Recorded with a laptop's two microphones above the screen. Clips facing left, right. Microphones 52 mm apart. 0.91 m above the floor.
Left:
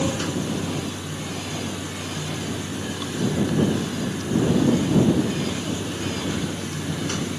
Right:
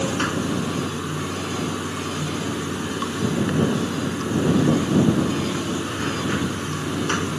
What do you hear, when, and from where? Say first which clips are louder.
0.0 s running water: right 2 dB; 45° right (ahead or behind)